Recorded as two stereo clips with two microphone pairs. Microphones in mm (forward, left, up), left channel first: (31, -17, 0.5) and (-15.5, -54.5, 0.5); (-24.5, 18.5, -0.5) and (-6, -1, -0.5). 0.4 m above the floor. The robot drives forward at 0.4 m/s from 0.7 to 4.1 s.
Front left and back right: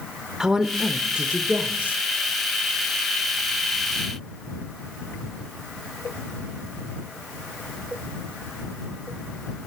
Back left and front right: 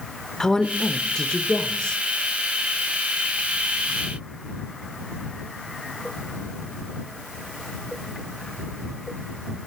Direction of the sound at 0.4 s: 160° left.